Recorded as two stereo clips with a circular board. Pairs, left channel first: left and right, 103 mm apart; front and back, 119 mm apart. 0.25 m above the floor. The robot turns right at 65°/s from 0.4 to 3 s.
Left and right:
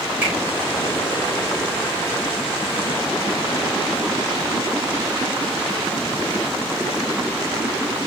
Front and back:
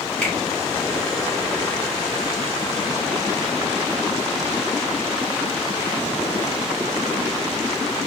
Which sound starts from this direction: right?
A finger snap, at 0.2 s.